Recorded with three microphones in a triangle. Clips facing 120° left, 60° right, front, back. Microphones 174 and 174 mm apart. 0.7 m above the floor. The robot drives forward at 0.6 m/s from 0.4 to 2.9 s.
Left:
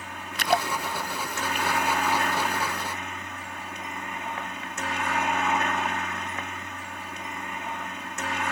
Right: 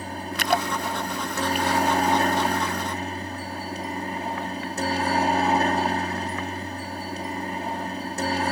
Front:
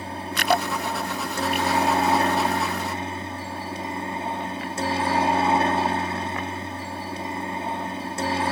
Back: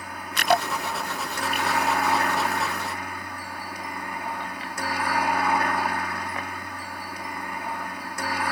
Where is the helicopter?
40° right; by 8.5 s 45° right.